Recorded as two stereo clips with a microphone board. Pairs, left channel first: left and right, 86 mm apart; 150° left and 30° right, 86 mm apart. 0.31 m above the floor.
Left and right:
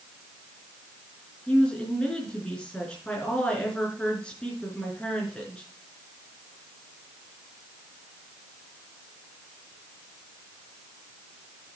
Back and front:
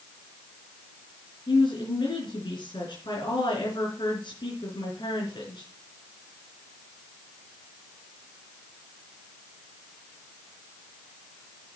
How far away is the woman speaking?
About 4 m.